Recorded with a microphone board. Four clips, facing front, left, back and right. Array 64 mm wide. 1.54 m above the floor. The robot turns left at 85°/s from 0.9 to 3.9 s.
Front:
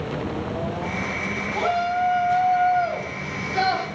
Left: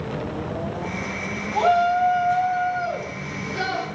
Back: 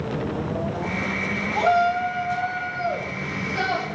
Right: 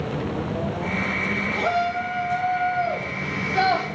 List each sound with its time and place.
1.5 s a shout: 105° left, 4 m; by 3.9 s 90° right, 4 m